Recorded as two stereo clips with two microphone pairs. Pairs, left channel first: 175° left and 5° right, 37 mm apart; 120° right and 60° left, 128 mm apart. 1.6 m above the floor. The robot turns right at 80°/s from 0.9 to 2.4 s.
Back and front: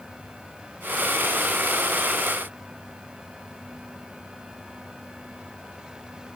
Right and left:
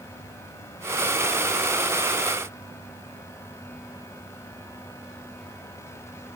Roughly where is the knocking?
I don't hear knocking.